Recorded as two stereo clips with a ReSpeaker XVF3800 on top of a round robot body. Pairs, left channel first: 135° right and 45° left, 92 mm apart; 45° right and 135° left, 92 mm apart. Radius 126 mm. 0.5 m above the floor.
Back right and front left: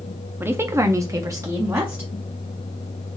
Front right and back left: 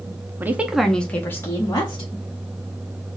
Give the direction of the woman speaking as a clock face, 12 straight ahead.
9 o'clock.